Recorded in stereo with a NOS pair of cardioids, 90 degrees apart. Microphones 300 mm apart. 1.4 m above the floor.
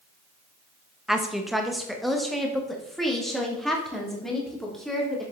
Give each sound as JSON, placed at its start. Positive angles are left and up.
{"t": 1.1, "sound": "a woman speaking", "azimuth_deg": 0, "distance_m": 1.3}